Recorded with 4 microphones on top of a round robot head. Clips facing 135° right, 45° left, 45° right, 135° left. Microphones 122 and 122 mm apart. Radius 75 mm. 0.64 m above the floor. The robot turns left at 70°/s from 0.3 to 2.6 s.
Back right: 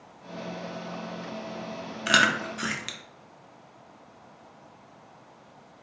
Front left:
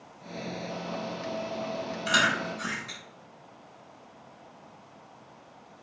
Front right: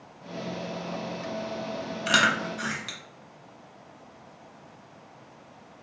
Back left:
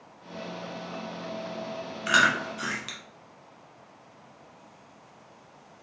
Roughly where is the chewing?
Right.